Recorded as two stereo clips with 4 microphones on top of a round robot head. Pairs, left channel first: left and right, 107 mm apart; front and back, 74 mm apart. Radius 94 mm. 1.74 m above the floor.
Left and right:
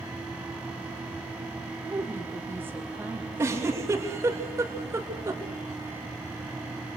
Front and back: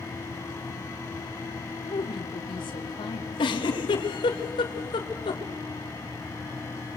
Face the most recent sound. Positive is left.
turn(degrees=-20)